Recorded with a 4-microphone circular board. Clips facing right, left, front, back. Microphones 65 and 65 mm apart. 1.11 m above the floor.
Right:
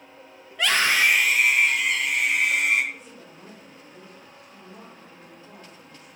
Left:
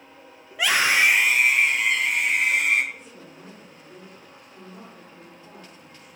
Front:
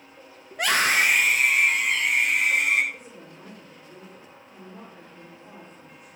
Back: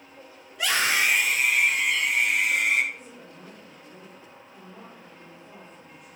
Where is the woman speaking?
35° left, 3.5 m.